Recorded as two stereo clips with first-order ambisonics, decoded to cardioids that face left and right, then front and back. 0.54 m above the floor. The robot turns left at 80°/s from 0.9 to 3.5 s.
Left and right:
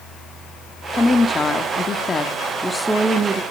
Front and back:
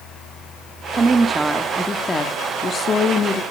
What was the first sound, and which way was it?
A woman speaking, 150° left.